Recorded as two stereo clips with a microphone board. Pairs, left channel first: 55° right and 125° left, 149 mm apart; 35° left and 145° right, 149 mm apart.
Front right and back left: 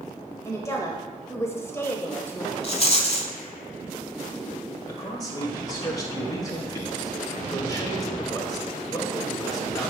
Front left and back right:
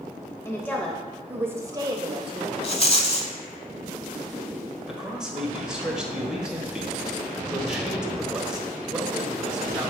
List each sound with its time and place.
0.5 s a woman speaking: 15° right, 1.0 m; by 2.5 s 130° right, 1.2 m
2.6 s a rattle: 10° right, 0.7 m
4.9 s a man speaking: 65° right, 1.2 m